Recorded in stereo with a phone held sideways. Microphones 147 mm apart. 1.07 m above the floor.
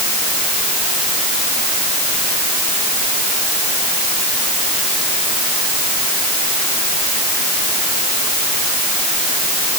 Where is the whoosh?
I don't hear a whoosh.